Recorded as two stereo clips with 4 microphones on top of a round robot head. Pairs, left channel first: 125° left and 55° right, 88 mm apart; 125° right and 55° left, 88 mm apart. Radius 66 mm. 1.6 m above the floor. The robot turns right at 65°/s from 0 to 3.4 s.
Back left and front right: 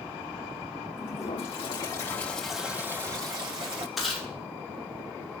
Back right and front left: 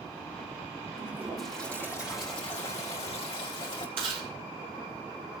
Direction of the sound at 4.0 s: 35° left.